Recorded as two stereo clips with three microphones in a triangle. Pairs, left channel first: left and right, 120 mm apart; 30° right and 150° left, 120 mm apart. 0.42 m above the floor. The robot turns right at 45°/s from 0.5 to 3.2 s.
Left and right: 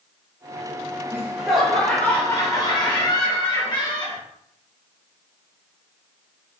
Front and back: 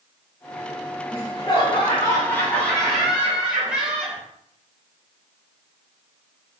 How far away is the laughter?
About 1.6 m.